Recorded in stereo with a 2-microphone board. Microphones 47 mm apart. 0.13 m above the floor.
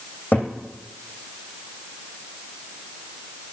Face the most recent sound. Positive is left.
turn(degrees=40)  # may be behind; listen again after turning